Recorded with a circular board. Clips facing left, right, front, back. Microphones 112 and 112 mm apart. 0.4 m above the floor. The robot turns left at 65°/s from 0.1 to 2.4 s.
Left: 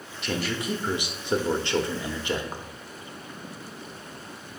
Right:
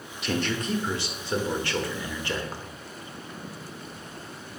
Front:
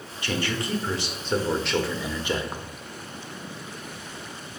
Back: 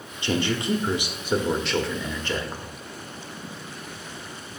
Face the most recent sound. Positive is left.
turn(degrees=40)